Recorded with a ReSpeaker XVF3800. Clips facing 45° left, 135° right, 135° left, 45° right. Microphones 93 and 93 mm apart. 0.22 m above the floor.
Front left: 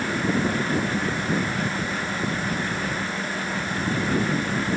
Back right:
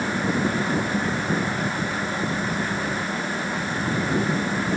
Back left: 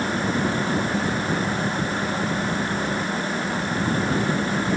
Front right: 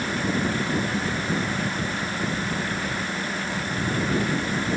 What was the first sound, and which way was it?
Only background noise.